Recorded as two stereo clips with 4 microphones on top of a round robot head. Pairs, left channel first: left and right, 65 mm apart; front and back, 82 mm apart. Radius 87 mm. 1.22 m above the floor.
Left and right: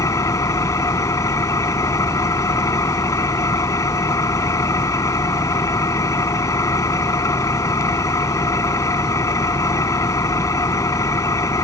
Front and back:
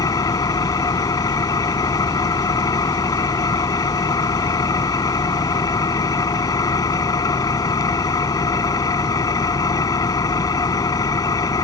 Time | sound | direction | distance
0.0 | an engine running | 50° left | ?